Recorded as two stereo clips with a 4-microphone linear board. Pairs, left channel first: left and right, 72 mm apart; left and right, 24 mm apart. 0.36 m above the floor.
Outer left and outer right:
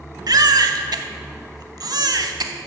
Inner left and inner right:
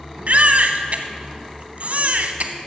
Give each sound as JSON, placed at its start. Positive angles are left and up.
{"t": 0.3, "sound": "a baby crying", "side_deg": -65, "distance_m": 0.7}